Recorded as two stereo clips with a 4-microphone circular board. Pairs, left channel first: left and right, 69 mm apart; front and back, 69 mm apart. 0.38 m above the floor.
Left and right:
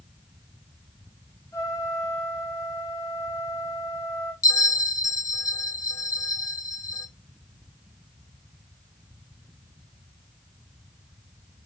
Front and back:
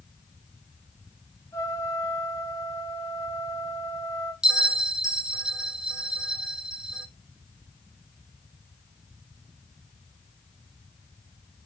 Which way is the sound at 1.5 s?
45° left.